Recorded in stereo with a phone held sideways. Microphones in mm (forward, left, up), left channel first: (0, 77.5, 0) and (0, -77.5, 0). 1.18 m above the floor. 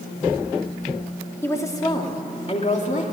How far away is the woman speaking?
About 2.5 m.